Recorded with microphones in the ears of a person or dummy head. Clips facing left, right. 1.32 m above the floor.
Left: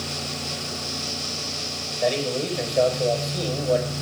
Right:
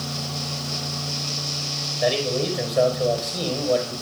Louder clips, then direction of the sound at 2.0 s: Right 1 dB; 5° right (ahead or behind).